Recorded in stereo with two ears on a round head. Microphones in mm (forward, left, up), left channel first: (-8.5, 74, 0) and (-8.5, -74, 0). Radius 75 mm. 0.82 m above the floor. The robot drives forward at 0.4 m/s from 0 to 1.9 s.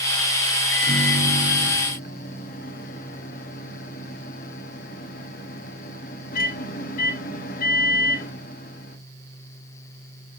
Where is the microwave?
65° left (ahead or behind), 0.9 m; by 9.0 s 55° left (ahead or behind), 1.0 m.